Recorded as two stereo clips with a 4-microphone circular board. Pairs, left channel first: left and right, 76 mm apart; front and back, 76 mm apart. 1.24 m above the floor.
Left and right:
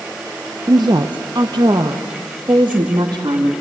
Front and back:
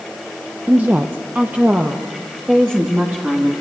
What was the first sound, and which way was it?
A woman speaking, 115° right.